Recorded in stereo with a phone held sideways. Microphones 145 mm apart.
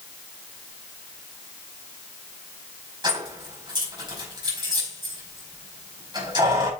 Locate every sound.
3.0 s keys jangling: 30° right (ahead or behind), 4.5 m